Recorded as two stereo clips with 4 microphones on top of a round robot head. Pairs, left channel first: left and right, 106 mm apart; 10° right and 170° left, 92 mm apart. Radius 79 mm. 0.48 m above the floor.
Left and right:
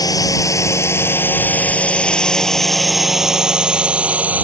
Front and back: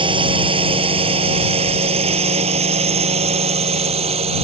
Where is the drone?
145° left; by 4.4 s 165° right.